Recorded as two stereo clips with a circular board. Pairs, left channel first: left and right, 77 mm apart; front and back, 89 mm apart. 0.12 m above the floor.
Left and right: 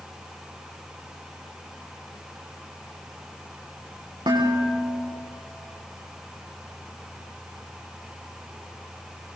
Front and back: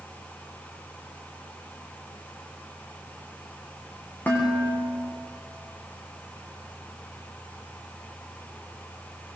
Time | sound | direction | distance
4.3 | dishes clattering | 70° right | 6 m